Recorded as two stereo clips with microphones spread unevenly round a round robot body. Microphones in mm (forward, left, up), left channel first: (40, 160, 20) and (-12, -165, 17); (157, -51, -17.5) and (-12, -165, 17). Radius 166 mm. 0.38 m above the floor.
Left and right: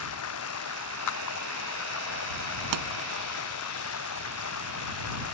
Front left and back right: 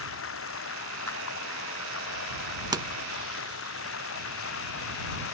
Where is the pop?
75° right.